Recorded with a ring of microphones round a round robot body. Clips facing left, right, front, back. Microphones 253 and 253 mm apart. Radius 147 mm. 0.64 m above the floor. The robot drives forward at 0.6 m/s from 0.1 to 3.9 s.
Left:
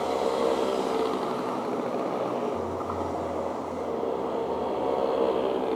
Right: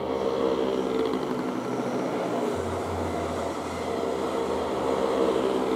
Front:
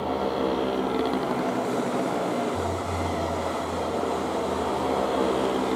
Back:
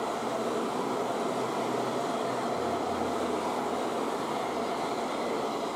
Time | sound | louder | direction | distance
0.0 | a motorcycle | even, front 6 dB | 25° right | ?